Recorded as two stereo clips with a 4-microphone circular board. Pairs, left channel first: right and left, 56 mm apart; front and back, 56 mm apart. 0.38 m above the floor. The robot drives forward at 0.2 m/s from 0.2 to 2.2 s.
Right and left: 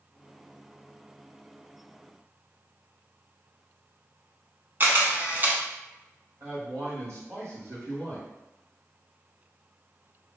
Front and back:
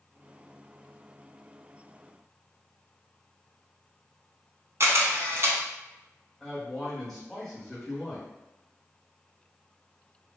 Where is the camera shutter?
145° left, 0.7 m.